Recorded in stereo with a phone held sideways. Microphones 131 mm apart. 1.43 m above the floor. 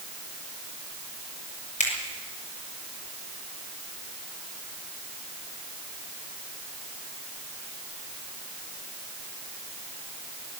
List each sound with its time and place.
1.8 s a finger snap: 70° left (ahead or behind), 7 m